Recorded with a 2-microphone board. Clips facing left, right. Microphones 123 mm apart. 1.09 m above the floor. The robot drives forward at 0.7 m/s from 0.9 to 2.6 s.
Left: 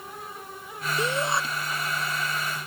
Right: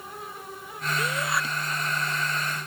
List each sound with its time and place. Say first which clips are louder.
1.0 s a shout: left 3 dB; 30° left (ahead or behind)